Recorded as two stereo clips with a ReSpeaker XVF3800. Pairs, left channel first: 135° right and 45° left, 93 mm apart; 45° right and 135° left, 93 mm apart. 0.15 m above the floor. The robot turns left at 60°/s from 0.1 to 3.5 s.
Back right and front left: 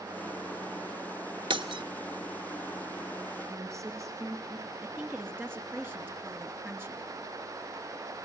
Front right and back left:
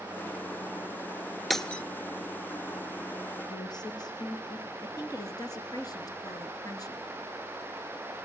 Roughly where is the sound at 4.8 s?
Ahead.